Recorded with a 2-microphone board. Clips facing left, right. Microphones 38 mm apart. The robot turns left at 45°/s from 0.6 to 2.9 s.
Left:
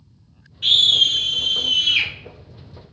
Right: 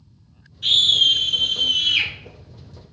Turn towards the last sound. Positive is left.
turn(degrees=20)